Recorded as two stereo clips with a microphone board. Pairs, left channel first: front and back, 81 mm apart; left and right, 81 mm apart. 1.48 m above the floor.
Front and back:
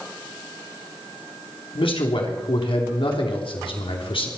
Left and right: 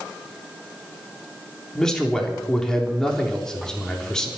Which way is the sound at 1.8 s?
5° left.